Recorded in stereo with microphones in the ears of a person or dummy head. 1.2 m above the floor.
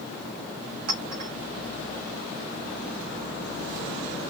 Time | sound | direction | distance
0.9 | a clink | 40° right (ahead or behind) | 0.9 m